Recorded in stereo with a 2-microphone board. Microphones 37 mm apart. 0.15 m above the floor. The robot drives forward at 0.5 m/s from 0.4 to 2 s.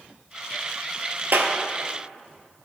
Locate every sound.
1.3 s a clap: 65° right (ahead or behind), 2.5 m